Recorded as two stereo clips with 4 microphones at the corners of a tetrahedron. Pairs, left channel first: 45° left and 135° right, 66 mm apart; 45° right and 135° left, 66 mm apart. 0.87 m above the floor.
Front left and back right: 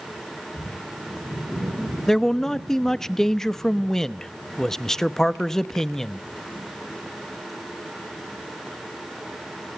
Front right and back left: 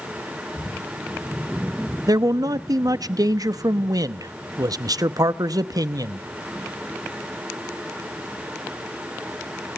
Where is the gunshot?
No gunshot in this recording.